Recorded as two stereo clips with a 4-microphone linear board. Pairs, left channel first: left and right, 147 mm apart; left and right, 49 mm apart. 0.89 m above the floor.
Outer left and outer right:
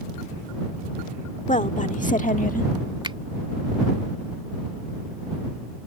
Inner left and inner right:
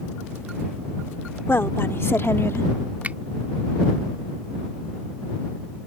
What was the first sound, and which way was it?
A woman speaking, 55° left (ahead or behind).